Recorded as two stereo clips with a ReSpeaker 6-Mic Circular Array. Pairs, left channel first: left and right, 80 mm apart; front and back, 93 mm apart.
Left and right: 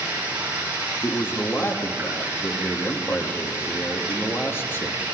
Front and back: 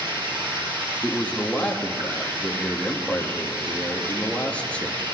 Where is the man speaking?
65° left, 1.2 m.